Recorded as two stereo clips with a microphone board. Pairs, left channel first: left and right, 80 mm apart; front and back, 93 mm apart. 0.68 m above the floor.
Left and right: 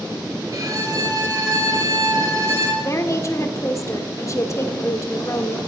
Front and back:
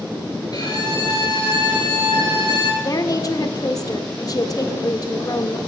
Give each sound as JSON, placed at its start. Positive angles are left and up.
{"t": 0.5, "sound": "a violin", "azimuth_deg": -45, "distance_m": 6.5}
{"t": 2.8, "sound": "a woman speaking", "azimuth_deg": 45, "distance_m": 1.8}